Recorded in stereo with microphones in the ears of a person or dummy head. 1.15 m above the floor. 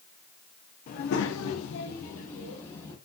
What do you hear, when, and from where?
0.9 s a child speaking: 45° left (ahead or behind), 1.1 m; by 3.0 s 30° left (ahead or behind), 2 m